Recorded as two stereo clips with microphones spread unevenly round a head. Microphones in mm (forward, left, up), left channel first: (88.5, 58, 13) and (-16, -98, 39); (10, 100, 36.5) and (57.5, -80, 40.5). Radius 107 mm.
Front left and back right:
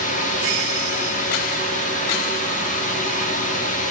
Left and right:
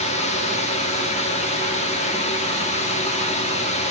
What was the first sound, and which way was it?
A fan, 65° left.